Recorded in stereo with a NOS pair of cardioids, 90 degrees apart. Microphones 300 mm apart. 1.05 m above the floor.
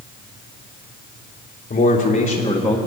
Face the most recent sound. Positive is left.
turn(degrees=5)